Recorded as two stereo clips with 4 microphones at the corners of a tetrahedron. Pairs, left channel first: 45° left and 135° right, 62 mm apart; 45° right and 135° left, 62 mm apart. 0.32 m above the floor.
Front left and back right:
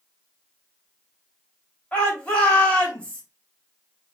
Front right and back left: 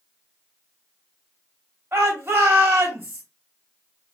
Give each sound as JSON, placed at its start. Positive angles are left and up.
{"t": 1.9, "sound": "a shout", "azimuth_deg": 110, "distance_m": 1.9}